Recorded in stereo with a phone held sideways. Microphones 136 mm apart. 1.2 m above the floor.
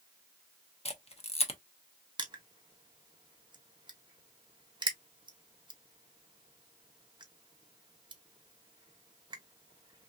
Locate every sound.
0.8 s a camera shutter: 50° left (ahead or behind), 0.7 m
2.2 s crushing: 35° right (ahead or behind), 0.8 m